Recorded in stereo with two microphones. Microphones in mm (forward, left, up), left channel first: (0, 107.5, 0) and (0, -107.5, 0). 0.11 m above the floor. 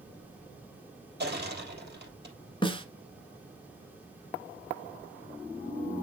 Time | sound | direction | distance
1.2 | crushing | 45° right (ahead or behind) | 3 m
2.6 | a snare drum | 20° left (ahead or behind) | 1.3 m